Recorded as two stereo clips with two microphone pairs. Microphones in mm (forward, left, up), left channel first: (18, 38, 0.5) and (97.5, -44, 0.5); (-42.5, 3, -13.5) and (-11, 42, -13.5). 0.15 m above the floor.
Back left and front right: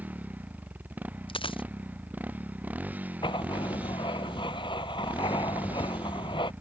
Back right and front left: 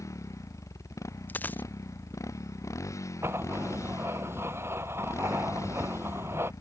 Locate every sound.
0.0 s a motorcycle: 120° right
1.3 s a dropped coin: 175° left
3.2 s writing: 85° left